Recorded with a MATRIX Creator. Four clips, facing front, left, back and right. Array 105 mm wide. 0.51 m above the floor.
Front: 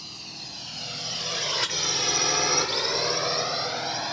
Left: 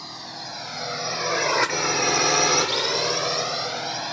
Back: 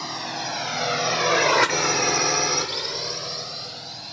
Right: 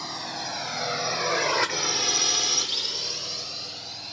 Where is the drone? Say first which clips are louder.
Right 3 dB, back 16 dB; 165° right; by 4.1 s 45° left.